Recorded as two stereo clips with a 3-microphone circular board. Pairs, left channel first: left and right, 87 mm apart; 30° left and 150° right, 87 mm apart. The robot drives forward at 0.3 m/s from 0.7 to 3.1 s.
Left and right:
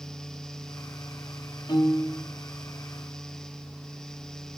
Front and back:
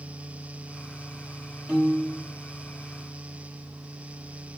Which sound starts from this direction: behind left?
A piano, at 1.7 s.